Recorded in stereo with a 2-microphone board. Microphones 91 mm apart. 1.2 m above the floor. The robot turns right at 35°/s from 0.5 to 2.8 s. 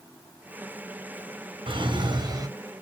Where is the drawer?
65° right (ahead or behind), 3 m; by 2.5 s 40° right (ahead or behind), 3 m.